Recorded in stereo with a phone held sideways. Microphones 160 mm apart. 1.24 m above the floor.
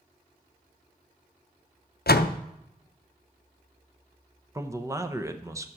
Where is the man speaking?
20° right (ahead or behind), 0.8 m.